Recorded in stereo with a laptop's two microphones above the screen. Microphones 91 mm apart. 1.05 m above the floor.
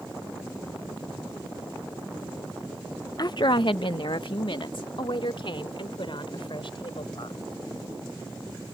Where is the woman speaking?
45° left (ahead or behind); by 7.4 s 65° left (ahead or behind).